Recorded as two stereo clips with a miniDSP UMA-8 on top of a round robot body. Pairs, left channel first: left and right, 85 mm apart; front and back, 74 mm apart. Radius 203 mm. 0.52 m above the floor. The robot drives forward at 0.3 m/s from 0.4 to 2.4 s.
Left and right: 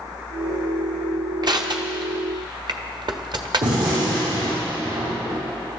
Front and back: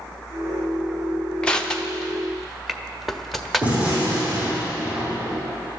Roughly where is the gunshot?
Right.